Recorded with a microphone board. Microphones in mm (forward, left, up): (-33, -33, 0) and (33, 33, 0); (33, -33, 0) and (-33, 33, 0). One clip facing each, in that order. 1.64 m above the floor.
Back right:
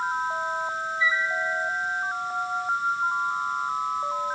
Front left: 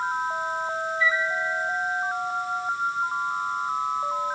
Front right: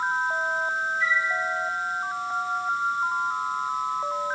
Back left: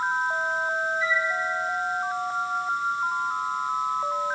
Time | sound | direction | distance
1.0 | a flute | 65° right | 2.5 m